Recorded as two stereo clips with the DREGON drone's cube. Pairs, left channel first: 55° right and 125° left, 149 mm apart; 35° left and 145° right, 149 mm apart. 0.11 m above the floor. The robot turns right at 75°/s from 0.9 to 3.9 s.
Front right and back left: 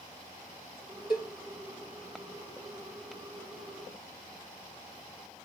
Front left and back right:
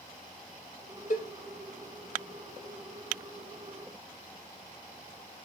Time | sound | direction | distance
1.1 | a cowbell | 5° left | 1.0 m